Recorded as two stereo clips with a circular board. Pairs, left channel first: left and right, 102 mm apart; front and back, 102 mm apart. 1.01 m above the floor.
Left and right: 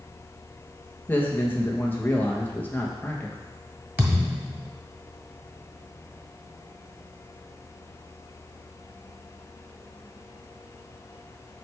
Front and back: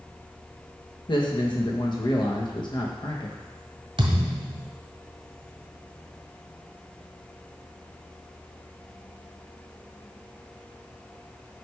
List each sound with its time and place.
1.1 s a man speaking: 25° left, 1.3 m
4.0 s a thud: 155° right, 1.5 m